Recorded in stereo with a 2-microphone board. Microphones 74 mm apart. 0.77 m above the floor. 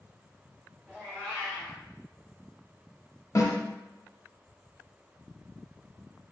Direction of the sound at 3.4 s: 45° left (ahead or behind).